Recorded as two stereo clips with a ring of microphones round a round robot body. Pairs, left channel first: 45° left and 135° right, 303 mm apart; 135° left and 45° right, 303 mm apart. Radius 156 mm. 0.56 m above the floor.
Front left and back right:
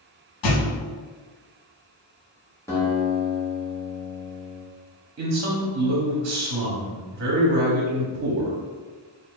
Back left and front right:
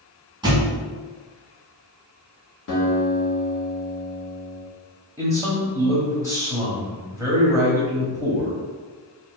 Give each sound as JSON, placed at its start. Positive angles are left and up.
{"t": 0.4, "sound": "a thud", "azimuth_deg": 30, "distance_m": 1.0}
{"t": 2.7, "sound": "a guitar", "azimuth_deg": 120, "distance_m": 1.6}
{"t": 5.2, "sound": "a man speaking", "azimuth_deg": -120, "distance_m": 1.0}